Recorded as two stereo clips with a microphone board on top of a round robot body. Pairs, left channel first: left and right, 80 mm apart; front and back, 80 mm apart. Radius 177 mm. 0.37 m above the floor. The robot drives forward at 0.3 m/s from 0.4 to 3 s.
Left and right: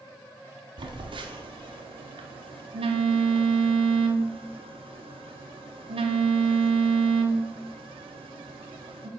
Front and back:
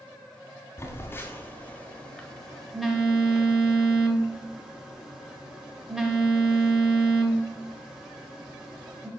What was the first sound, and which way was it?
A phone buzzing, 60° right.